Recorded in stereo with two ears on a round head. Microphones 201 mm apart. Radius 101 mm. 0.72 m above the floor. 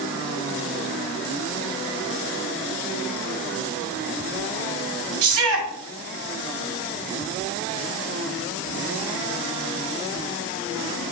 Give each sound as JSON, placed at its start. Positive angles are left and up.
{"t": 5.2, "sound": "a shout", "side_deg": -65, "distance_m": 3.5}